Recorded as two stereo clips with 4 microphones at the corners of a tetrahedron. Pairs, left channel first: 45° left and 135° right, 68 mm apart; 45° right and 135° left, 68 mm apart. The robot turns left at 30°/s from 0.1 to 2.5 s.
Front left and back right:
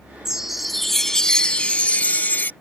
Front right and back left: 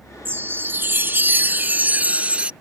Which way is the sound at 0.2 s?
150° left.